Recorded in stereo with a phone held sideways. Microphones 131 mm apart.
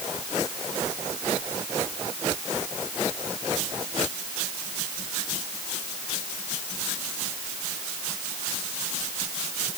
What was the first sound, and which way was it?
Only background noise.